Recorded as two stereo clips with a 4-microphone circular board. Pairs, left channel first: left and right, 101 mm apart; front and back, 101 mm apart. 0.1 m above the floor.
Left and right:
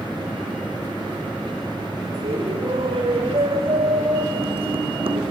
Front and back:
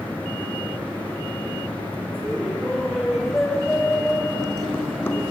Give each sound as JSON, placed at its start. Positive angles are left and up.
{"t": 2.1, "sound": "laughter", "azimuth_deg": -95, "distance_m": 6.5}